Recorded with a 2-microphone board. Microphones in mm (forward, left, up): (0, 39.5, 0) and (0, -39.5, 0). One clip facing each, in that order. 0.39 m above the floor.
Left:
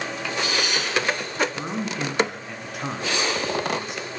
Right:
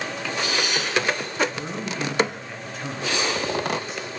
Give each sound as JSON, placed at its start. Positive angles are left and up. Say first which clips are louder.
{"t": 1.6, "sound": "a man speaking", "louder": "left 1 dB", "side_deg": 70, "distance_m": 4.5}